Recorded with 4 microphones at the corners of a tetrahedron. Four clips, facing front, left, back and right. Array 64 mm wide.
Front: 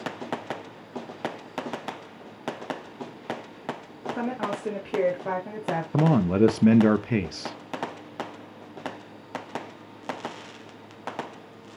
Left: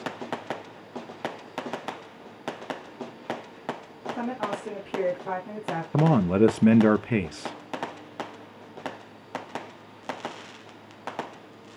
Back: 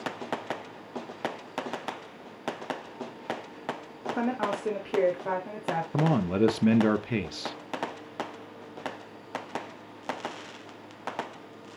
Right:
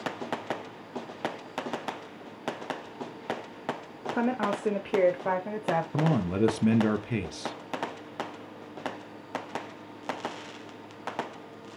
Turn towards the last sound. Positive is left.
turn(degrees=65)